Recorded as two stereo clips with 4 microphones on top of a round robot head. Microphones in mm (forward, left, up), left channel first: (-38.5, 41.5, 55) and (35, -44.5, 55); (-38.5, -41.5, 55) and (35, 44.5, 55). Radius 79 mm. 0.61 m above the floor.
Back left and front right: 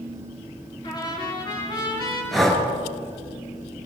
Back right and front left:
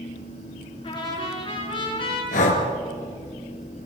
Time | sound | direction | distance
0.8 | a trumpet | 175° right | 8.5 m
2.3 | breathing | 140° right | 4.5 m